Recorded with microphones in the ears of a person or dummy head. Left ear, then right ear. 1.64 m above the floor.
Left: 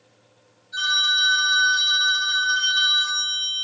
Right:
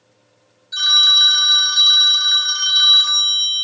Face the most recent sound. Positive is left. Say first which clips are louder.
# right 8 dB
turn(degrees=-35)  # may be behind; listen again after turning